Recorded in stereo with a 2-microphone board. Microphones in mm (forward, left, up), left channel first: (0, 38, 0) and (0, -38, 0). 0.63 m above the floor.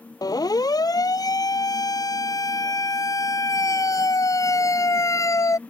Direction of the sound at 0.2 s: 65° left (ahead or behind).